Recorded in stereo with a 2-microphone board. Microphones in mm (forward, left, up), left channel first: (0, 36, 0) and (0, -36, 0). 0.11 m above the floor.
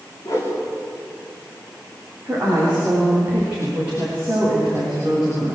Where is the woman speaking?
25° right (ahead or behind), 9 m.